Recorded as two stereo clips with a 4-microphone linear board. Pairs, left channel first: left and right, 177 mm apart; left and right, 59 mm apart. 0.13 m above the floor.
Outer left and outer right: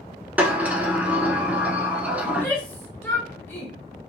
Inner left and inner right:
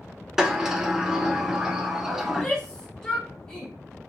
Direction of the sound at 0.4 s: 10° right (ahead or behind).